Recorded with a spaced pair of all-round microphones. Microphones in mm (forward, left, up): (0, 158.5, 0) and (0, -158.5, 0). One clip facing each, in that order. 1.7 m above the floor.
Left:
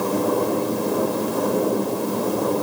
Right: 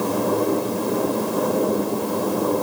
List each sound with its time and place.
Only background noise.